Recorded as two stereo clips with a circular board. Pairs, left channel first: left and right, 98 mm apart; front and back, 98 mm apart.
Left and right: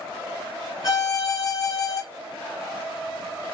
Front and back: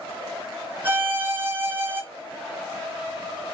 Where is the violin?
120° left, 1.2 m.